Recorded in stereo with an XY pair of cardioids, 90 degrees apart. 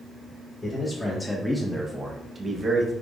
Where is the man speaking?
30° left, 1.3 m; by 2.9 s 50° right, 1.3 m.